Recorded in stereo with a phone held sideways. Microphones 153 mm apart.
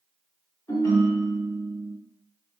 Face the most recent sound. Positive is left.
turn(degrees=25)  # may be behind; listen again after turning